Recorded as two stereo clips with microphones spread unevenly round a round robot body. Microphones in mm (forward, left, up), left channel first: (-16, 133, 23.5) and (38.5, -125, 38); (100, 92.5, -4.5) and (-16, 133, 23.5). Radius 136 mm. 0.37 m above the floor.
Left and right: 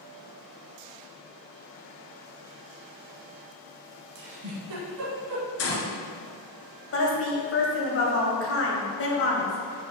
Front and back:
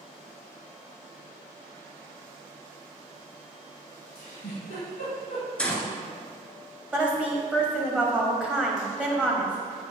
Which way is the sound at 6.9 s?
75° left.